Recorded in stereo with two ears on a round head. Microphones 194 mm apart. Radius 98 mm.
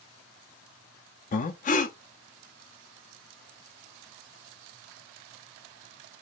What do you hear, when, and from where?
1.3 s breathing: 35° left (ahead or behind), 0.6 m